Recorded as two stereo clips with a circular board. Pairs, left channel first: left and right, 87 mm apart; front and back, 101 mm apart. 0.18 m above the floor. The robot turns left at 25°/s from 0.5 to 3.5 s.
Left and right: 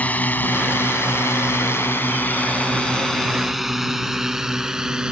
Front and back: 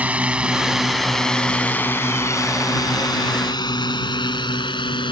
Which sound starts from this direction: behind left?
A drone, at 0.0 s.